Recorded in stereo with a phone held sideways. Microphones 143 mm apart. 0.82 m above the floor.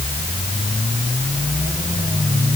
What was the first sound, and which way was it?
Only background noise.